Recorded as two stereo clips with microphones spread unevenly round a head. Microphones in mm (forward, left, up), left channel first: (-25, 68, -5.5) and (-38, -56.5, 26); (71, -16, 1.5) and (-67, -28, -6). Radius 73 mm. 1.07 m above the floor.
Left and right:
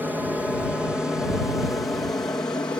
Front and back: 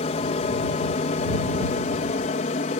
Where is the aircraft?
10° right; by 2.8 s 15° left.